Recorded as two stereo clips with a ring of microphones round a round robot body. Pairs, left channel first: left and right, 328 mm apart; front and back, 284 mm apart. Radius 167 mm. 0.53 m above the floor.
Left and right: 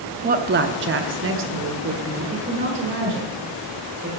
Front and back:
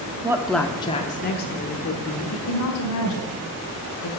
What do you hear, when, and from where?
0.2 s a woman speaking: 120° right, 0.7 m; by 4.2 s 30° right, 2.5 m